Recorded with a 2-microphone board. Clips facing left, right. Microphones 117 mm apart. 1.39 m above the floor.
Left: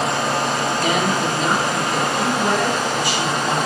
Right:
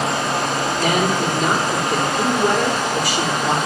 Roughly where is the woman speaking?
Right.